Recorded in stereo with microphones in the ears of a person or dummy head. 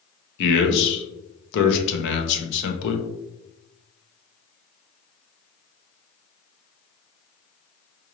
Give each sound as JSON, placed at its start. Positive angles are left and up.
{"t": 0.4, "sound": "a man speaking", "side_deg": 65, "distance_m": 0.8}